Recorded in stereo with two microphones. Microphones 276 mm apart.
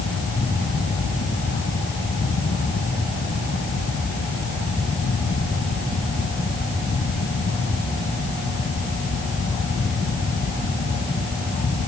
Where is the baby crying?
No baby crying in this recording.